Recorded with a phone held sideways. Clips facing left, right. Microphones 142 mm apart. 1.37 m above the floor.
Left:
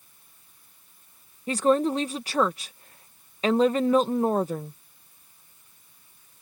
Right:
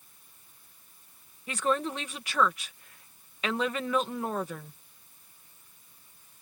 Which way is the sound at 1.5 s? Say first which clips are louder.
Left 8 dB; 35° left (ahead or behind).